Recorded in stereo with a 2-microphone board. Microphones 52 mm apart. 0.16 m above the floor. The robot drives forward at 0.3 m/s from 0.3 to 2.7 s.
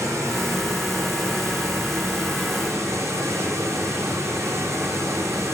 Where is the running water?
80° right, 7.5 m.